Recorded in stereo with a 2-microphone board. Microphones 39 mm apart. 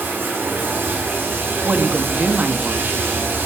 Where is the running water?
65° right (ahead or behind), 4.5 m.